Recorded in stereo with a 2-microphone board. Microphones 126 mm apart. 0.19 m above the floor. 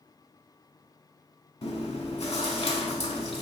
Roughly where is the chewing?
Left.